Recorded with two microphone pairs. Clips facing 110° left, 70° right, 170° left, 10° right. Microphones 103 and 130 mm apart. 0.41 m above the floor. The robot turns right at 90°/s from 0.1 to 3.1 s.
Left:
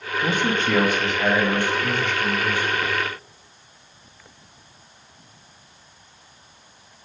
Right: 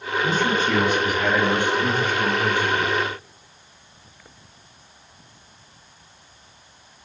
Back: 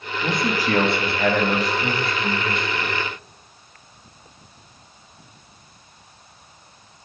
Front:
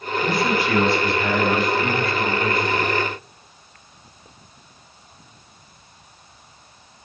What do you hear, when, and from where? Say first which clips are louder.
0.2 s a man speaking: right 1 dB, front 1 dB; 90° left, 2 m; by 2.9 s 25° right, 2 m